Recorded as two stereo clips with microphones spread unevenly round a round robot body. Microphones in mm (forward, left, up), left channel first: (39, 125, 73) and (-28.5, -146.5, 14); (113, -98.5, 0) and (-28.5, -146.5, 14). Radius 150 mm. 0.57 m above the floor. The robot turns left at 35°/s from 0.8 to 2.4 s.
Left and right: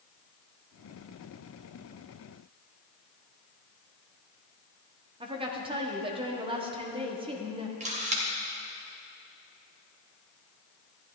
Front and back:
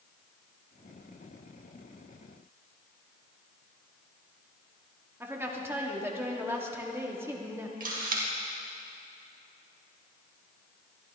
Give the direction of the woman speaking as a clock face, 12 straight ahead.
3 o'clock.